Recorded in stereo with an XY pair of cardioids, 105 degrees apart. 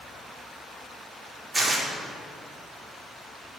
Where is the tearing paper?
25° right, 2.5 m.